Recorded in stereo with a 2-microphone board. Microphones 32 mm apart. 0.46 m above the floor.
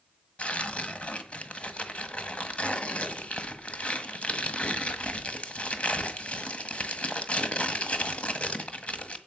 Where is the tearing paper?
40° left (ahead or behind), 1.6 m.